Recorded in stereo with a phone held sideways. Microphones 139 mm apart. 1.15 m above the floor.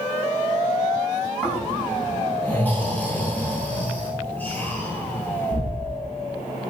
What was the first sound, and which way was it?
Snoring, 15° left (ahead or behind).